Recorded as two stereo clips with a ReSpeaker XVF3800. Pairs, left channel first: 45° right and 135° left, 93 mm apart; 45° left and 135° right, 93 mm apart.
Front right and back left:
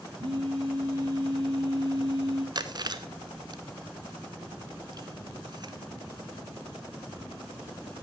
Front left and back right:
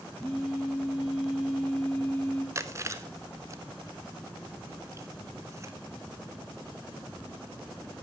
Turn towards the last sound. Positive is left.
turn(degrees=170)